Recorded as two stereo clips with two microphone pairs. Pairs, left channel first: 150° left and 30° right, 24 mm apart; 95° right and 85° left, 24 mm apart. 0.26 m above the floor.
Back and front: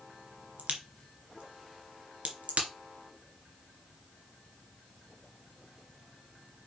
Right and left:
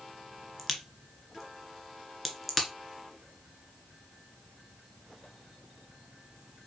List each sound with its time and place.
0.6 s a crack: 10° right, 2 m